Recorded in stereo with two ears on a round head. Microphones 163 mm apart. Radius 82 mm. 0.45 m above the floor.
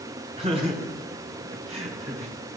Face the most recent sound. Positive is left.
turn(degrees=-35)  # may be behind; listen again after turning